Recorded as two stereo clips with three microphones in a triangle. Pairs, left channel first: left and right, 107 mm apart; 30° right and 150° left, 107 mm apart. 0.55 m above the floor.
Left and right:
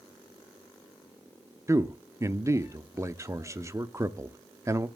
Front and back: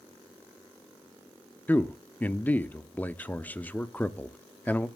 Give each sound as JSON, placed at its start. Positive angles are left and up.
{"t": 1.7, "sound": "a man speaking", "azimuth_deg": -85, "distance_m": 0.6}